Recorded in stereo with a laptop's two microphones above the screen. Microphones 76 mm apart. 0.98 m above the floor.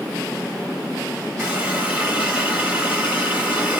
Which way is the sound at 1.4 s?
20° right (ahead or behind).